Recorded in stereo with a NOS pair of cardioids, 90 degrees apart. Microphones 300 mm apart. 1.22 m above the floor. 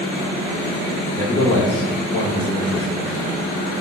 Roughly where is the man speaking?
Ahead left.